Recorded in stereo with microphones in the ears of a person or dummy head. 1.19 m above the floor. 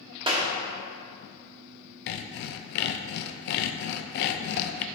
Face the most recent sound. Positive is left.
turn(degrees=60)  # may be behind; listen again after turning